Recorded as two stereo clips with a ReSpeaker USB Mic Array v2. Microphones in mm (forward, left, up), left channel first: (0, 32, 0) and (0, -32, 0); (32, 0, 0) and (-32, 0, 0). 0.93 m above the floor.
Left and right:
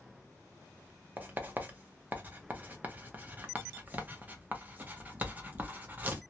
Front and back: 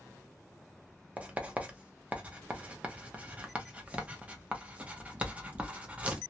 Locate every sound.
1.2 s writing: 130° right, 0.6 m